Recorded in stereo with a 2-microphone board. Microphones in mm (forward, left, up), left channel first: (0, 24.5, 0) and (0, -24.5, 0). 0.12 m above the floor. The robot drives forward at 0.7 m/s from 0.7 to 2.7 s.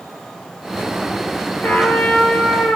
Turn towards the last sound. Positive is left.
turn(degrees=25)  # may be behind; listen again after turning